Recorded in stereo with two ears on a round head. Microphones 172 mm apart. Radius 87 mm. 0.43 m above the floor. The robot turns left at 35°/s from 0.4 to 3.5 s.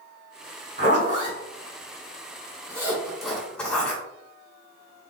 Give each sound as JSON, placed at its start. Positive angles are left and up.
{"t": 0.8, "sound": "a zipper", "side_deg": -45, "distance_m": 1.8}